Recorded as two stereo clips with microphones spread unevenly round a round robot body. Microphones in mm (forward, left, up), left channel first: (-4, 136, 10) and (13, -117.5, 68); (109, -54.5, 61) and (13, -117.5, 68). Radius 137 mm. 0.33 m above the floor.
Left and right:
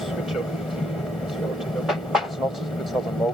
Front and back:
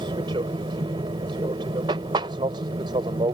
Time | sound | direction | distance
0.0 | an aircraft | 170° left | ?